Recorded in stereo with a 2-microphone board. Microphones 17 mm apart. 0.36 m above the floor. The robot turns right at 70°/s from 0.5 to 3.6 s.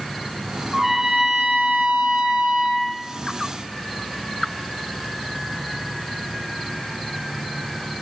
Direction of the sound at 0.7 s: 165° right.